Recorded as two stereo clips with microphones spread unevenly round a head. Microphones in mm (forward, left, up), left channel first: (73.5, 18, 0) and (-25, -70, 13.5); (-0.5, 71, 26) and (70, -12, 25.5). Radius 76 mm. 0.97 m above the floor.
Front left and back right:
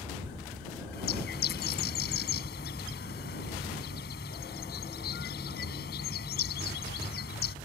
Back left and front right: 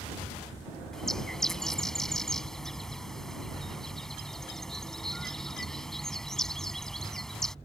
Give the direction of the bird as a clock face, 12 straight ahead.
11 o'clock.